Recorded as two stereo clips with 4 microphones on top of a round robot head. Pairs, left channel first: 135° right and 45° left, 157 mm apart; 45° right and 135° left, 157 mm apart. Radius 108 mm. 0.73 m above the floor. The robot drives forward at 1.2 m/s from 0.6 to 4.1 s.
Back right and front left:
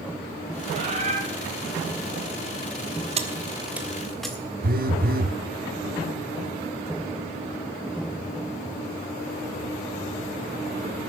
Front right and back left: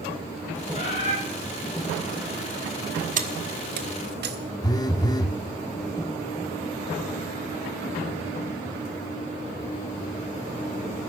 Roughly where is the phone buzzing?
Ahead.